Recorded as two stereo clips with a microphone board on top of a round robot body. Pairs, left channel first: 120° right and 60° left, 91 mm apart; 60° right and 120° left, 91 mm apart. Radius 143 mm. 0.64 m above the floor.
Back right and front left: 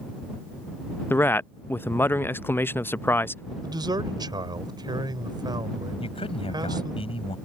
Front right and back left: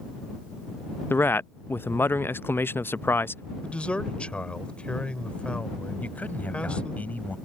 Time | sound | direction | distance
1.1 | a man speaking | 90° right | ?
3.6 | a man speaking | 15° left | ?
6.0 | a man speaking | 135° right | ?